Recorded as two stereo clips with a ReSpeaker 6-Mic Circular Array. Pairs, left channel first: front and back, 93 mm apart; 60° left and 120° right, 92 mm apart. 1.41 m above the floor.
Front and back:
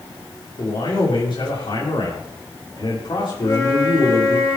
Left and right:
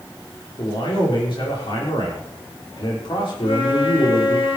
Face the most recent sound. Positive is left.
turn(degrees=55)